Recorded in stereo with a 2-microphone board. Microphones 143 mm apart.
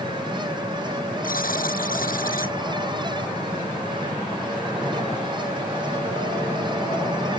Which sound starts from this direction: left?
A buzzer, at 1.2 s.